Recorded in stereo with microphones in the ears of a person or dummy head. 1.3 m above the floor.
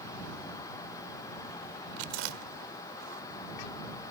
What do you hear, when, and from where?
2.0 s chewing: 80° right